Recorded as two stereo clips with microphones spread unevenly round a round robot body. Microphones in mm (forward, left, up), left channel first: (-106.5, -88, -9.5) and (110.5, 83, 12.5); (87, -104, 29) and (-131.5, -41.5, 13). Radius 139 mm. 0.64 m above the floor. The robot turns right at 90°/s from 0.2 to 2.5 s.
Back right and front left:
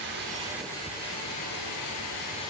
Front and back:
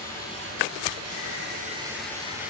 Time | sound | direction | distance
0.0 | running water | 90° left | 8.5 m